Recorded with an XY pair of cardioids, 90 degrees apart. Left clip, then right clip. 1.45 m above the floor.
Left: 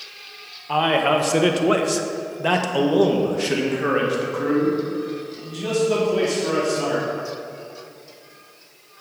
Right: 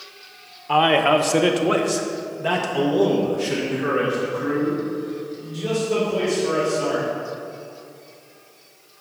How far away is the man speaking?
About 0.9 m.